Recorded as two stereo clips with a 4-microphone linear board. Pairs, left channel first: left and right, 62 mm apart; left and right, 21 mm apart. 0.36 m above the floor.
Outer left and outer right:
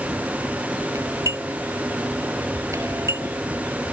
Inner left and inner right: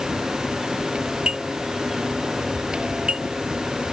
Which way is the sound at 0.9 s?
50° right (ahead or behind).